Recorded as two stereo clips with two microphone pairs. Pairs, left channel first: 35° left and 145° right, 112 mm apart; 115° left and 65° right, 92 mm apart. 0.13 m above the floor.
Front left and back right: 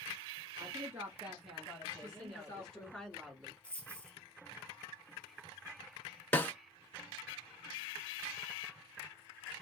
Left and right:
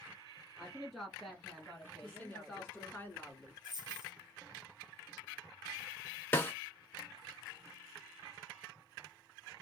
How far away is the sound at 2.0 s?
About 1.1 m.